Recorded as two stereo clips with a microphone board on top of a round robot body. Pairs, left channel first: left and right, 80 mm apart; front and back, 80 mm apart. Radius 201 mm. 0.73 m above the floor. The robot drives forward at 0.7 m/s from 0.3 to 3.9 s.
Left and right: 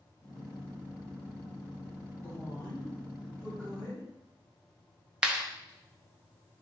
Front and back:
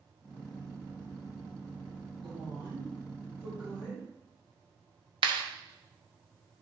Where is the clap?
170° right, 0.9 m.